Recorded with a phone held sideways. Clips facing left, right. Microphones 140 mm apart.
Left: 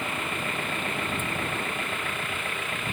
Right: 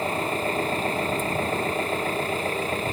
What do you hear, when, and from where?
0.0 s an engine running: 35° right (ahead or behind)